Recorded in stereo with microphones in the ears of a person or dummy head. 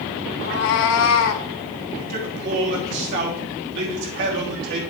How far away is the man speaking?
About 3 m.